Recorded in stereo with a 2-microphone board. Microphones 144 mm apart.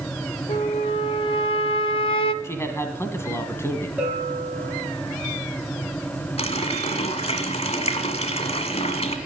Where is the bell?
10° right (ahead or behind), 4.5 m.